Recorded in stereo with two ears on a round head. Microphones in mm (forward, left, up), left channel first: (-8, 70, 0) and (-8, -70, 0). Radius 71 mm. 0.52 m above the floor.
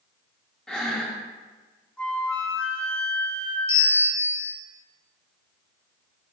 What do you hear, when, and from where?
0.7 s breathing: 5° left (ahead or behind), 0.8 m
2.0 s a flute: 10° left (ahead or behind), 1.6 m
3.7 s a bell: 50° left (ahead or behind), 3 m